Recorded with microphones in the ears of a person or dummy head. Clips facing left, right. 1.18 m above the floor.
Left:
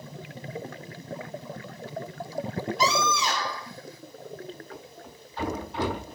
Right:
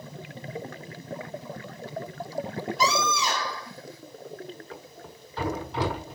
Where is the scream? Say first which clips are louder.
Even; 80° right, 3.5 m.